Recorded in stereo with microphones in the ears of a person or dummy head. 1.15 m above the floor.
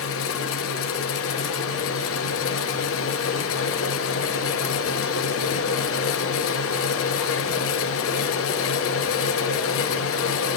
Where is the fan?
70° left (ahead or behind), 0.7 m.